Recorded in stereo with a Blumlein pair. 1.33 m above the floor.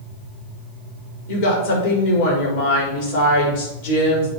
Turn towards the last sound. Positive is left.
turn(degrees=50)